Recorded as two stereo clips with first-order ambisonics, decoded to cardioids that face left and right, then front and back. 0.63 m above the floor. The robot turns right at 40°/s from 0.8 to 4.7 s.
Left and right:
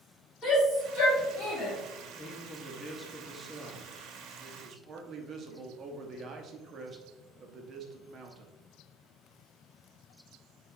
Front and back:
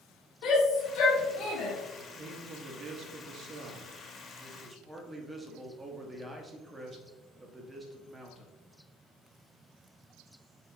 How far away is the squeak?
No squeak in this recording.